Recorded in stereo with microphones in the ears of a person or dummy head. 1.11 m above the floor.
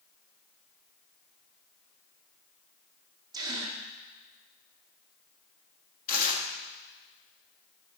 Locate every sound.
3.3 s a gasp: 15° right (ahead or behind), 1.2 m
6.1 s tearing paper: 50° left (ahead or behind), 1.6 m